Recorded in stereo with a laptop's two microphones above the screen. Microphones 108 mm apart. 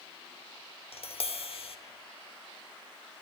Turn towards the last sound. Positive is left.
turn(degrees=70)  # may be behind; listen again after turning